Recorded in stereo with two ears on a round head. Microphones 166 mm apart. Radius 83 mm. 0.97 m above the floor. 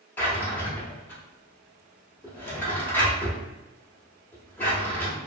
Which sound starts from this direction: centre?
A drawer, at 0.2 s.